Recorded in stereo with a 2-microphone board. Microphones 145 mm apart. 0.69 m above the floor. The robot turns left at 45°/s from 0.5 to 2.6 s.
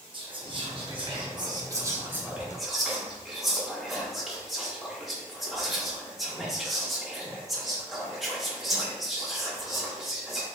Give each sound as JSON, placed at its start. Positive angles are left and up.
{"t": 0.1, "sound": "whispering", "side_deg": -35, "distance_m": 0.7}